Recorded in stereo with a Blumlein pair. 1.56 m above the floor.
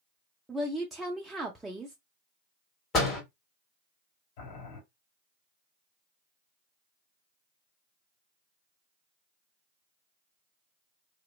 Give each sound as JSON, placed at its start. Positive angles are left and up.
{"t": 0.5, "sound": "a woman speaking", "azimuth_deg": -5, "distance_m": 0.5}
{"t": 2.9, "sound": "a door slam", "azimuth_deg": 25, "distance_m": 1.6}
{"t": 4.4, "sound": "boiling", "azimuth_deg": 45, "distance_m": 2.0}